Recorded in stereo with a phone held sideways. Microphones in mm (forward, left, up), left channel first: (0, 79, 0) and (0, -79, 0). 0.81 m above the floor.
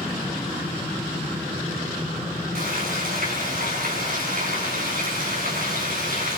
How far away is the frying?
About 6 m.